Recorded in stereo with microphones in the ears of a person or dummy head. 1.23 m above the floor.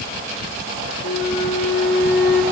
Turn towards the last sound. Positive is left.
turn(degrees=50)  # may be behind; listen again after turning